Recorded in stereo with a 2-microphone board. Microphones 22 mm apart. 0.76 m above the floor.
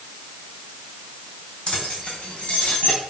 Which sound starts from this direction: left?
Keys jangling, at 1.7 s.